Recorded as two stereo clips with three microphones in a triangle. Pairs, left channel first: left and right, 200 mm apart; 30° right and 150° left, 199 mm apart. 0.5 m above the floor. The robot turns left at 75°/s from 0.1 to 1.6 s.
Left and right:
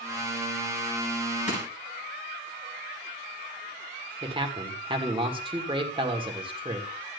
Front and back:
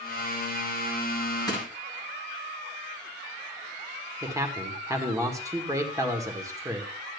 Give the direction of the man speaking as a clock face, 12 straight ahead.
5 o'clock.